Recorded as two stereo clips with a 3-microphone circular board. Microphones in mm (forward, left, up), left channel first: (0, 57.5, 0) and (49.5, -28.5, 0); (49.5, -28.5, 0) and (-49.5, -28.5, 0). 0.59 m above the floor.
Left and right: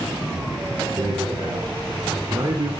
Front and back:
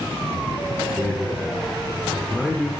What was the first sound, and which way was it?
A man speaking, 100° right.